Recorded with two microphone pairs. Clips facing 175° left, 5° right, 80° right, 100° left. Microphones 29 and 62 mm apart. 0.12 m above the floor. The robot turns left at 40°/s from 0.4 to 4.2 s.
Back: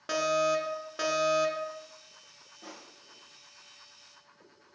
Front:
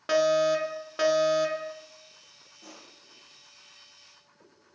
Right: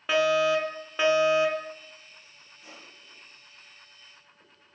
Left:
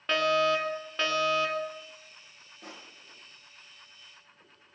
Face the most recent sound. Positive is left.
turn(degrees=65)